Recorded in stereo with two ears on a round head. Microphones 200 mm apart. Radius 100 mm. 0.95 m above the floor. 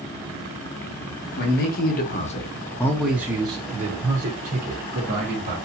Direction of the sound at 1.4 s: 45° left (ahead or behind).